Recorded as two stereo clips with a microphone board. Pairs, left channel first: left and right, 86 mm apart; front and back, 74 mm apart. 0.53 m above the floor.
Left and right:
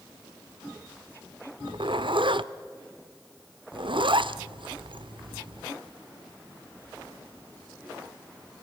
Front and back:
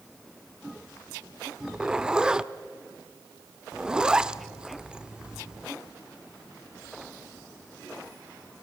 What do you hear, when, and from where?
1.6 s a zipper: 100° right, 0.5 m